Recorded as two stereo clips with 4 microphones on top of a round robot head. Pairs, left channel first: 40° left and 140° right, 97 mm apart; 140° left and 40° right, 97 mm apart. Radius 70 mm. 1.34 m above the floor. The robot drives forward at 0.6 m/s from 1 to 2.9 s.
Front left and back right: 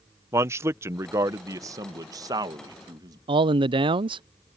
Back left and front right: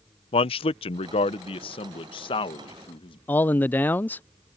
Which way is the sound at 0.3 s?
160° left.